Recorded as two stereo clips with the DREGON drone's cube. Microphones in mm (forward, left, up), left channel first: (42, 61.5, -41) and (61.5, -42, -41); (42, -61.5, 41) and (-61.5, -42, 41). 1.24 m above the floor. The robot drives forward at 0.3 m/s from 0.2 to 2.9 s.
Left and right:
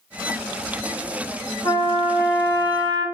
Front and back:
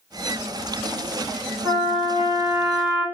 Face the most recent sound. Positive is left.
turn(degrees=125)